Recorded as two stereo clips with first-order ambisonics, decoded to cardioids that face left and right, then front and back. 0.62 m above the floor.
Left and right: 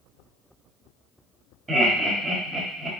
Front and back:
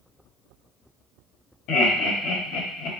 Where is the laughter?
15° right, 1.4 m.